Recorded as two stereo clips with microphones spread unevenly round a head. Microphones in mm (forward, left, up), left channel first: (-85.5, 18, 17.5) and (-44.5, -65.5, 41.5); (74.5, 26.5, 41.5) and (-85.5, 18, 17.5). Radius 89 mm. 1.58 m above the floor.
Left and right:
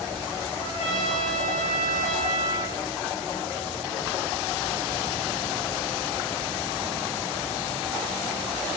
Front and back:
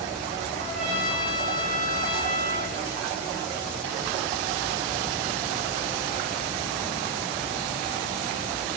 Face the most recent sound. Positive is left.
turn(degrees=90)